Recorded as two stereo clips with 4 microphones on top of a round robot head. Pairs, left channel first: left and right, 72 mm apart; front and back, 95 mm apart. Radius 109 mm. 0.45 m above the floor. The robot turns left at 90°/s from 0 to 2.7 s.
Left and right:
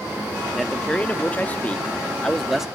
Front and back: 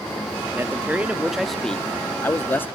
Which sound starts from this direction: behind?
A man speaking, at 0.5 s.